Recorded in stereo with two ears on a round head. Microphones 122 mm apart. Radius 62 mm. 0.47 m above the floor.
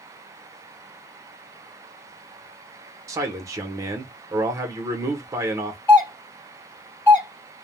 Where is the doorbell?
20° left (ahead or behind), 2 m.